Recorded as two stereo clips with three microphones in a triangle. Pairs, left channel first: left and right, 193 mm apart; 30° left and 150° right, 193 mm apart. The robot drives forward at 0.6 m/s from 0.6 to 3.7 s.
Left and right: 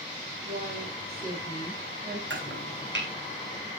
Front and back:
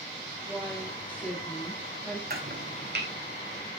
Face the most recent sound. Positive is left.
turn(degrees=-125)